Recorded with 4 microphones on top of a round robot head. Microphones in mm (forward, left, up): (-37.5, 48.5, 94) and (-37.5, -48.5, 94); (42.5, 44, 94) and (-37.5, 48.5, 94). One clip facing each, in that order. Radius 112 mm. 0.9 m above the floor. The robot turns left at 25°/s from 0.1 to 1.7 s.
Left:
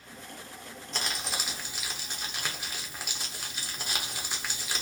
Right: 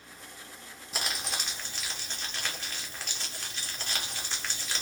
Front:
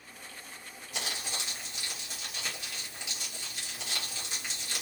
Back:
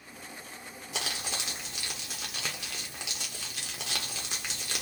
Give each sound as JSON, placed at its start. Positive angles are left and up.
{"t": 0.9, "sound": "crumpling", "azimuth_deg": -175, "distance_m": 0.6}